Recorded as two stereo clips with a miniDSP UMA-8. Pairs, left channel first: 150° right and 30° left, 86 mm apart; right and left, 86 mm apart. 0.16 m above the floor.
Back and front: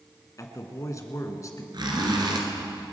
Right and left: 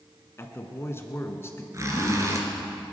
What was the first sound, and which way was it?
A man speaking, 130° right.